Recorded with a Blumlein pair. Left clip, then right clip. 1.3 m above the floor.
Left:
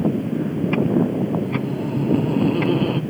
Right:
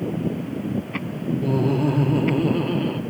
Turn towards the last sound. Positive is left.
turn(degrees=15)